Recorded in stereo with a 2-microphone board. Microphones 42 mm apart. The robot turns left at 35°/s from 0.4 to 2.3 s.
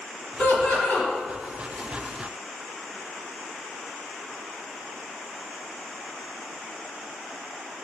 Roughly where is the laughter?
Left.